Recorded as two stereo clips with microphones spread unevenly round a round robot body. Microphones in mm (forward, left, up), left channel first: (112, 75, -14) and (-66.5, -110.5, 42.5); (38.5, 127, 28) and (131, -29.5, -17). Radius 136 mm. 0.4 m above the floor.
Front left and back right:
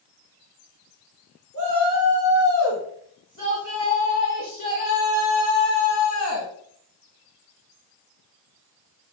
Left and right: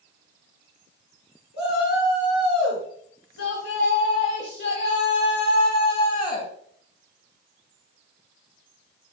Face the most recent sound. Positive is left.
turn(degrees=70)